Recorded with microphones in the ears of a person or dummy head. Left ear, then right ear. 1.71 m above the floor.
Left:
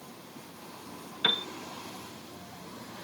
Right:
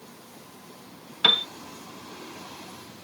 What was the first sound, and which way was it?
A piano, 20° right (ahead or behind).